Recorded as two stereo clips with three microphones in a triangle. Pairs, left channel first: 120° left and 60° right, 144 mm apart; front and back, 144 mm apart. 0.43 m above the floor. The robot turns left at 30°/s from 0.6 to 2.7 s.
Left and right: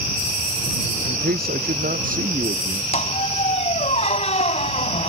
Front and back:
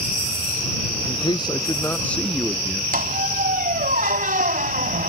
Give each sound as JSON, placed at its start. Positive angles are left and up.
{"t": 1.1, "sound": "a man speaking", "azimuth_deg": -50}
{"t": 2.9, "sound": "a squeak", "azimuth_deg": 160}